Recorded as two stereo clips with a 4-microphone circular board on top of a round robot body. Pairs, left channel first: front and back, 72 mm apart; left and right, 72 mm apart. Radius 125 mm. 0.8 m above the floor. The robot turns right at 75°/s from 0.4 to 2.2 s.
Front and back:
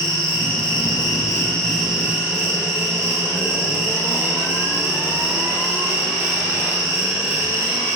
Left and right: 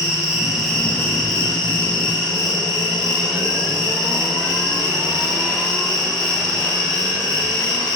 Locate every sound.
0.0 s an insect: 10° right, 1.4 m; by 8.0 s 125° left, 1.4 m